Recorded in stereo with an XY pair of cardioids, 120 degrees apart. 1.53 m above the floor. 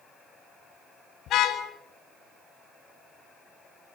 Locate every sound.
1.3 s a car horn: 60° left, 6 m